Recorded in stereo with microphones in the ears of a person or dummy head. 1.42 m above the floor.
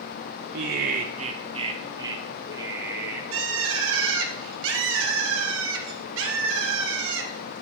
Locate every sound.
0.5 s laughter: 60° right (ahead or behind), 0.7 m; by 3.2 s 10° right (ahead or behind), 2 m
3.3 s a bird: 75° right (ahead or behind), 1.4 m